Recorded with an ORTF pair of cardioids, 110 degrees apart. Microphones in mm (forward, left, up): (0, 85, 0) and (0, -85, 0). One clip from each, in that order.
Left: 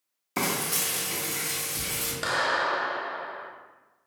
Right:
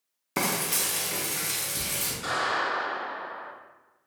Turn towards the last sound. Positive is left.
turn(degrees=60)